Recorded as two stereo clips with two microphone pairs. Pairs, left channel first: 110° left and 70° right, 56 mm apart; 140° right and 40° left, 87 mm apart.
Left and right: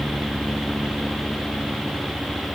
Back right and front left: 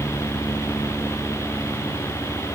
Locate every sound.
Only background noise.